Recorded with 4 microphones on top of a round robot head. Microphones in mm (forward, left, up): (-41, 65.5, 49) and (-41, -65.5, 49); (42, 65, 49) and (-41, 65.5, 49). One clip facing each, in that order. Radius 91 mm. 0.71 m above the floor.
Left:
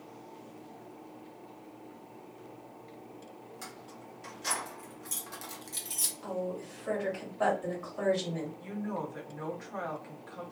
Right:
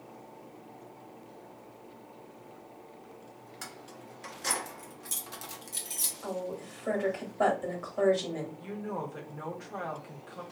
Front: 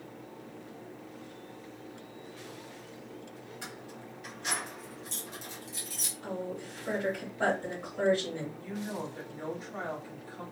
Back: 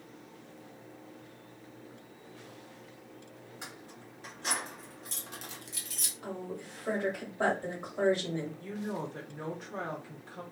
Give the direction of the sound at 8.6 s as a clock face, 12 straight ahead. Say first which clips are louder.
Even, even; 5 o'clock.